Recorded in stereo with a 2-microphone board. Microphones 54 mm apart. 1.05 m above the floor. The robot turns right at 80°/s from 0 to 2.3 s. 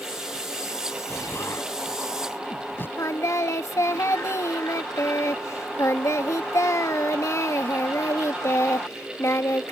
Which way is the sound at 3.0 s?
65° left (ahead or behind).